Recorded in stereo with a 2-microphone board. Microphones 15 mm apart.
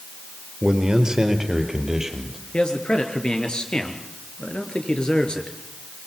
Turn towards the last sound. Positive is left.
turn(degrees=65)  # may be behind; listen again after turning